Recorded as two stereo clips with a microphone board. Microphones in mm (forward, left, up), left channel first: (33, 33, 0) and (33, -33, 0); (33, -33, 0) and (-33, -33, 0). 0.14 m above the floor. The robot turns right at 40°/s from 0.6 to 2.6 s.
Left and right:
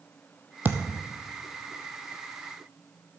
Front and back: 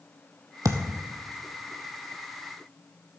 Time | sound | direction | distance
0.7 | a thud | 150° right | 1.2 m